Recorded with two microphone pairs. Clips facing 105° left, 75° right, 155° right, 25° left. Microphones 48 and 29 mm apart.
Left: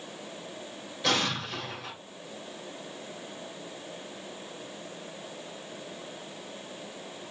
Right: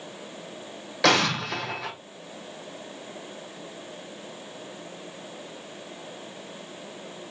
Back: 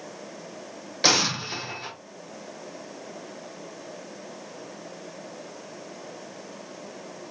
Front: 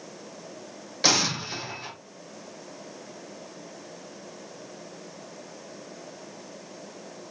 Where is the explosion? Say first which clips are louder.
Right 7 dB, back 2 dB; 70° right, 1.1 m.